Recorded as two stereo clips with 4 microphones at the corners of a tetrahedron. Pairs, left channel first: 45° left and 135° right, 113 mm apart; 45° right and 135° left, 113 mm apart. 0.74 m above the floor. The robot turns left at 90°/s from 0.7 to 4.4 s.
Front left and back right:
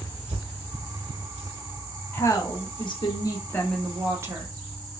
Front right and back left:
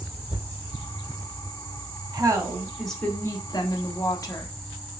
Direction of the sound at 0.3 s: 140° right.